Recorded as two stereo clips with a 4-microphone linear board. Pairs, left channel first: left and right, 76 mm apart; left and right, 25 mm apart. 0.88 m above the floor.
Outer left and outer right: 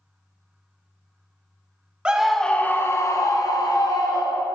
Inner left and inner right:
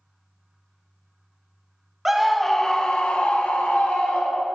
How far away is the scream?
About 0.6 m.